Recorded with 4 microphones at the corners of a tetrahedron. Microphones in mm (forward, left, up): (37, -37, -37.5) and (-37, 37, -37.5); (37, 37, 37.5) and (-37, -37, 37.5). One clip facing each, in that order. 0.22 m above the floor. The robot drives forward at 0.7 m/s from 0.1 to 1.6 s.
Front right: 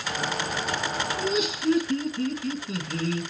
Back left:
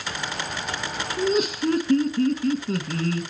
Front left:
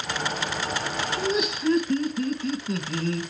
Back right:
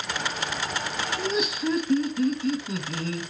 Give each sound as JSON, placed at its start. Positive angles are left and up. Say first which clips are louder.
{"t": 1.2, "sound": "laughter", "louder": "back left 7 dB, front left 1 dB", "azimuth_deg": 130, "distance_m": 1.5}